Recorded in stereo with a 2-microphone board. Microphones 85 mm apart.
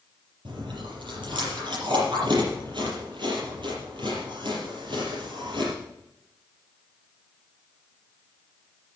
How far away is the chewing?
About 6 m.